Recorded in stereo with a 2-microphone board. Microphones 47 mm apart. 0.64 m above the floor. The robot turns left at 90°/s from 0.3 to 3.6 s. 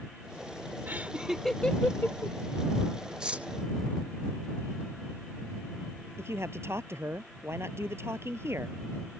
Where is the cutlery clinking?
15° right (ahead or behind); by 3.5 s 35° right (ahead or behind).